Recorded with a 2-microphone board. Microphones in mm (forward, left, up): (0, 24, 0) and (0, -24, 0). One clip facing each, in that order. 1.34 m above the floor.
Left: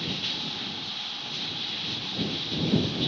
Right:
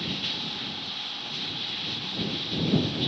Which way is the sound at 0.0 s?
5° right (ahead or behind).